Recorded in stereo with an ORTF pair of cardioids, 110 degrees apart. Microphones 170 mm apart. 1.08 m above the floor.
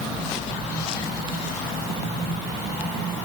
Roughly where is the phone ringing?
No phone ringing in this recording.